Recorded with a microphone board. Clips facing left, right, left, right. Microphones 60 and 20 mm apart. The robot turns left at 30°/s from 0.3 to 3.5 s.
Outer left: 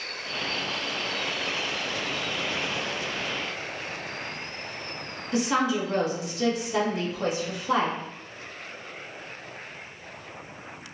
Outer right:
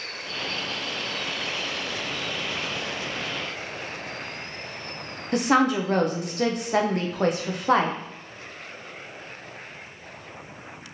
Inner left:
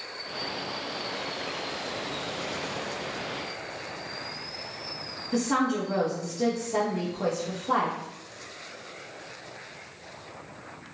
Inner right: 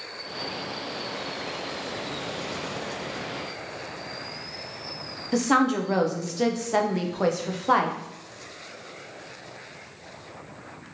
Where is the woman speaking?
55° right (ahead or behind), 0.5 m.